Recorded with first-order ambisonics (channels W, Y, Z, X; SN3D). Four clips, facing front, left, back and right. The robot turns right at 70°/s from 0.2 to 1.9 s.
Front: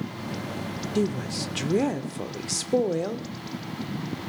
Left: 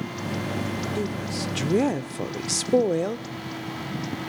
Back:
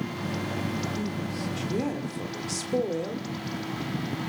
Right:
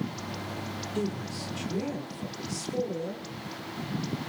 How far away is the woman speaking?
About 1.4 m.